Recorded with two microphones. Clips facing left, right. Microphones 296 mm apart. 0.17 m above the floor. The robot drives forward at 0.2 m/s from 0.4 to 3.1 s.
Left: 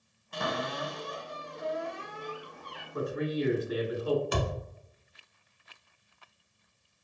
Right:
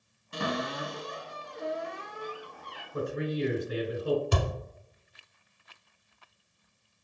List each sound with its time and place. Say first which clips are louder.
0.3 s a cupboard door: right 2 dB; 30° right (ahead or behind), 1.1 m; by 2.8 s 20° right (ahead or behind), 1.5 m
2.9 s a man speaking: even; 30° right (ahead or behind), 1.2 m
4.3 s a thud: even; 35° right (ahead or behind), 0.9 m